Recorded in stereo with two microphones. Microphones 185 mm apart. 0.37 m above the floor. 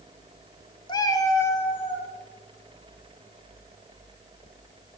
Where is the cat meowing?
25° left (ahead or behind), 0.6 m; by 2.1 s 10° left (ahead or behind), 2 m.